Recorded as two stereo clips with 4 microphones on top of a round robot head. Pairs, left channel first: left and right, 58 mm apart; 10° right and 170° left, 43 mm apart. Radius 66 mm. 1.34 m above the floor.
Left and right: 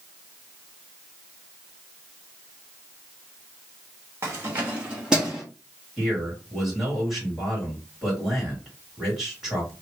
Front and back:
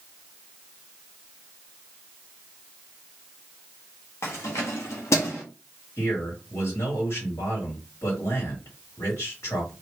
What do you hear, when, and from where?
4.2 s keys jangling: 40° right, 1.1 m; by 5.4 s 5° right, 1.4 m
6.0 s a man speaking: 10° right, 3.5 m